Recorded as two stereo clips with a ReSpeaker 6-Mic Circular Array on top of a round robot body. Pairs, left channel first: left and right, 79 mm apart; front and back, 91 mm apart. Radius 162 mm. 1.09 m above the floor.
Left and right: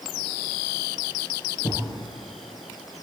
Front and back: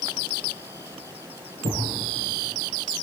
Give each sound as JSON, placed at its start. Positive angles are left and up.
{"t": 1.6, "sound": "a thud", "azimuth_deg": 150, "distance_m": 7.5}